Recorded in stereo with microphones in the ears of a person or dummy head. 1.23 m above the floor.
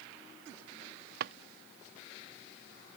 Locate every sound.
1.2 s a drawer: 60° right (ahead or behind)